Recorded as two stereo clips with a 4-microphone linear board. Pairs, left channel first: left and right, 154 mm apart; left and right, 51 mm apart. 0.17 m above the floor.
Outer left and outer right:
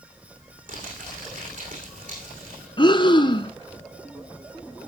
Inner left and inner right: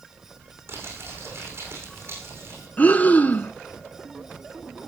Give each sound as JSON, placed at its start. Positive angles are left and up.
{"t": 0.7, "sound": "crumpling", "side_deg": -60, "distance_m": 9.5}
{"t": 2.8, "sound": "breathing", "side_deg": 35, "distance_m": 1.4}